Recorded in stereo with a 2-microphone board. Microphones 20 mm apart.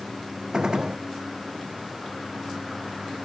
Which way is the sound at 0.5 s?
35° right (ahead or behind).